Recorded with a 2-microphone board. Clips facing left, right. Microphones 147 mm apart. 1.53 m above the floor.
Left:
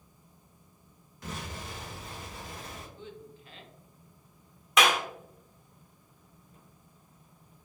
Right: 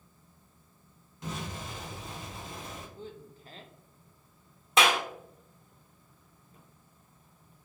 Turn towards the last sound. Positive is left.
turn(degrees=-30)  # may be behind; listen again after turning